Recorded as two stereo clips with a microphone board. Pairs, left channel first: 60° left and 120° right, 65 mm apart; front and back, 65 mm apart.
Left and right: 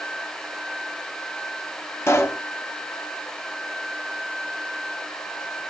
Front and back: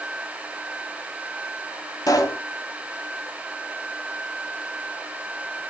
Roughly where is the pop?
Ahead.